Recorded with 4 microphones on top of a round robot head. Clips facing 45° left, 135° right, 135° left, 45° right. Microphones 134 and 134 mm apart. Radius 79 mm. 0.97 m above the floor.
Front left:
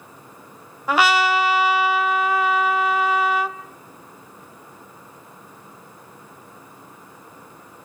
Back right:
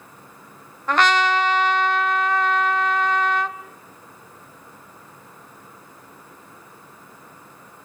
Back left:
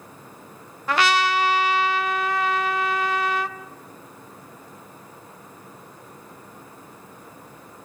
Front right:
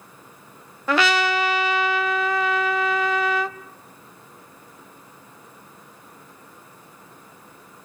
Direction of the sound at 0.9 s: 40° right.